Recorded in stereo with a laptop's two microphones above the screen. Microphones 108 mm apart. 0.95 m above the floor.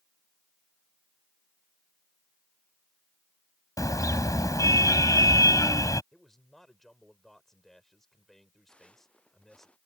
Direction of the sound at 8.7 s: 10° left (ahead or behind).